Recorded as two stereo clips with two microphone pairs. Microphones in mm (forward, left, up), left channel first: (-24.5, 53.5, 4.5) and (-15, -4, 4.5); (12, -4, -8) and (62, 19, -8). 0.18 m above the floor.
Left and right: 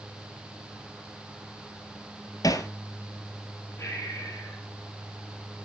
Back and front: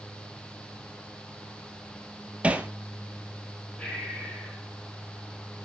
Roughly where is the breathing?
Behind left.